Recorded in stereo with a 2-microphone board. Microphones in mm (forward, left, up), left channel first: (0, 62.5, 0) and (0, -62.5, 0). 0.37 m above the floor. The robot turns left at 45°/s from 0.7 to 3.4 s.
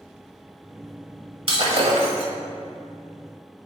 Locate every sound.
1.5 s breaking glass: 60° right, 1.1 m; by 2.3 s 100° right, 1.1 m